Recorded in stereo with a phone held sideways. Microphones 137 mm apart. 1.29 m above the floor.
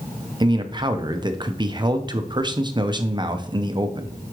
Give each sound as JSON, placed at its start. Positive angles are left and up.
{"t": 0.4, "sound": "a man speaking", "side_deg": -35, "distance_m": 0.7}